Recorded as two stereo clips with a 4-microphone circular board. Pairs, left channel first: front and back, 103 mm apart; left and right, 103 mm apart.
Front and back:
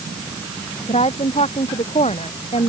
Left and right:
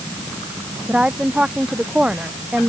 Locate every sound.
0.9 s a woman speaking: 10° right